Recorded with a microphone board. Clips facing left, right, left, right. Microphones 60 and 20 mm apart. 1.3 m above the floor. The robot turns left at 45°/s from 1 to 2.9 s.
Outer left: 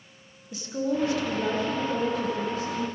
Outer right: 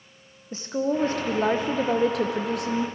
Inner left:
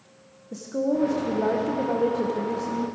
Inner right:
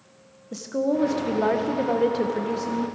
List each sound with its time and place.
0.5 s a woman speaking: 35° right, 0.8 m; by 2.9 s 120° right, 0.8 m